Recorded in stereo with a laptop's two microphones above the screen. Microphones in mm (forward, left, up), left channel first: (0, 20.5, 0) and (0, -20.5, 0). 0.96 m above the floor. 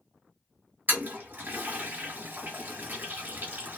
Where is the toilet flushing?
50° right (ahead or behind), 1.1 m.